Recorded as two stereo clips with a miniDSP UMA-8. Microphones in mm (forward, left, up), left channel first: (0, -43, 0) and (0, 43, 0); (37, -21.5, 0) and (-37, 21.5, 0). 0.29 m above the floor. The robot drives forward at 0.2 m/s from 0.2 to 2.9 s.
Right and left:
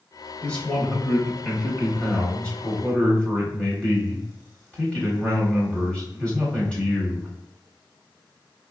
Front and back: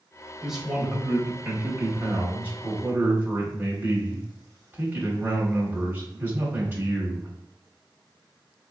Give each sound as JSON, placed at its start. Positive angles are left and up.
{"t": 0.4, "sound": "a man speaking", "azimuth_deg": -130, "distance_m": 0.9}